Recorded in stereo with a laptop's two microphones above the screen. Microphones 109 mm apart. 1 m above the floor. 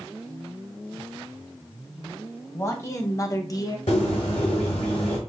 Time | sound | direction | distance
2.5 | a man speaking | 25° left (ahead or behind) | 1.4 m
3.9 | a bird | 80° left | 1.8 m